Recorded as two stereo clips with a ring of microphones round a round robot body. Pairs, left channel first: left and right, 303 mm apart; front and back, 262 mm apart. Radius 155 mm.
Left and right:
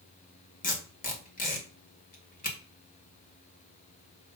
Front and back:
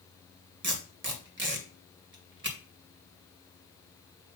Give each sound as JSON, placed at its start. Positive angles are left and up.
{"t": 0.6, "sound": "tape being pulled", "azimuth_deg": 145, "distance_m": 2.0}